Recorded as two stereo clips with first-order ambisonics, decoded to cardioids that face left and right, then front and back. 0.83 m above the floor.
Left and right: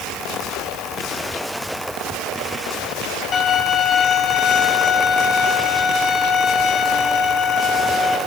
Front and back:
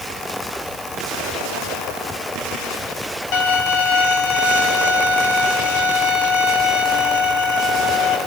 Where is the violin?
30° left, 1.6 m.